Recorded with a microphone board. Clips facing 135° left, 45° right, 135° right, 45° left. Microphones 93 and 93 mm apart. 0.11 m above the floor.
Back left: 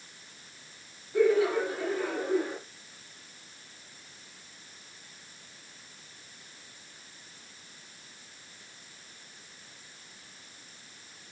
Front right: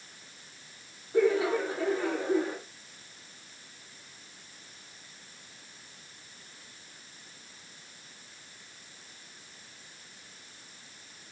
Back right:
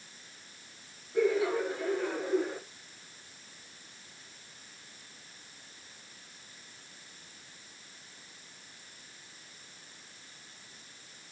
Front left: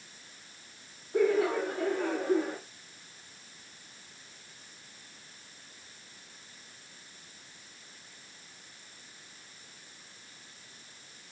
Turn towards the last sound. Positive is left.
turn(degrees=15)